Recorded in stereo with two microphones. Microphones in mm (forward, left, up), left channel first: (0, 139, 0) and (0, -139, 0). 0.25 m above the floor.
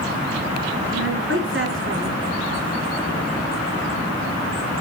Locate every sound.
0.9 s a woman speaking: 50° right (ahead or behind), 3 m